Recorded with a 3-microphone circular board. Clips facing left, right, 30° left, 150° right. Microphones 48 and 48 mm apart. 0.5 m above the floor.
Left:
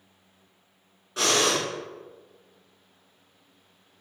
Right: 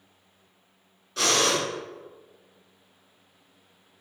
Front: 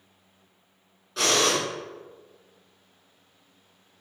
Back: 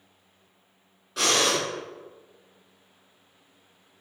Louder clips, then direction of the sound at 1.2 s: Even, front 1 dB; 125° left.